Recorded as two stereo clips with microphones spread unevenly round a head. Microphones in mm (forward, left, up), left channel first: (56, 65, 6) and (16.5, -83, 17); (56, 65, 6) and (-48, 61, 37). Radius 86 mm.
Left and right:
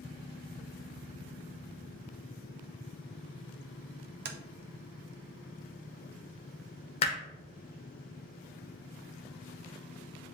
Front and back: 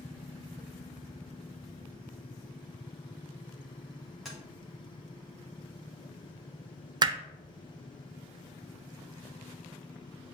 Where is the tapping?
85° right, 0.6 m.